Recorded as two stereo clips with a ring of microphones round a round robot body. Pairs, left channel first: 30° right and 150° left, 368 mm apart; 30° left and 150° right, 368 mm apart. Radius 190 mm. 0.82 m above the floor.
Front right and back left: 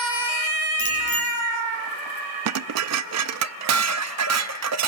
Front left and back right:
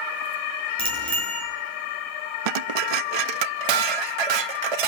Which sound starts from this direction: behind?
Dishes clattering, at 2.5 s.